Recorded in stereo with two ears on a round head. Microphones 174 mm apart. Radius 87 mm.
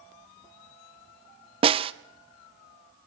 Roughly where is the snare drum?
Right.